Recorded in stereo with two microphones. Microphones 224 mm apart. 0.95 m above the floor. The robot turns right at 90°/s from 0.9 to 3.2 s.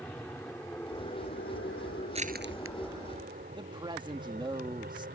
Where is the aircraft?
5° left (ahead or behind); by 5.2 s 45° right (ahead or behind).